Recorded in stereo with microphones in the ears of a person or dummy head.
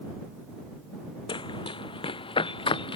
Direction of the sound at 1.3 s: 25° left (ahead or behind).